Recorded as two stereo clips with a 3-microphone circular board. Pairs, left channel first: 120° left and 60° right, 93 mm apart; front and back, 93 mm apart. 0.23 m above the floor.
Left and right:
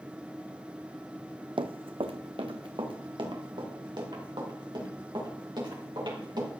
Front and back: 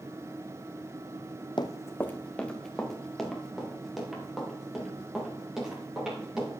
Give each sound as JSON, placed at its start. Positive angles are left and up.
{"t": 1.6, "sound": "running footsteps", "azimuth_deg": -35, "distance_m": 0.6}